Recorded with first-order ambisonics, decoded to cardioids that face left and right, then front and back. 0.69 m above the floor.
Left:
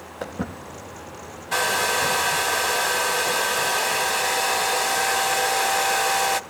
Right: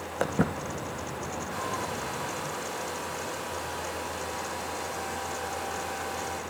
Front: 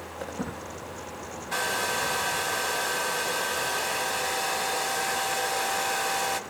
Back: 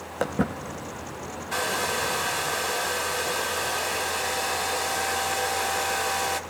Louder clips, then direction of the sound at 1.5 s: Left 14 dB, back 1 dB; 90° left.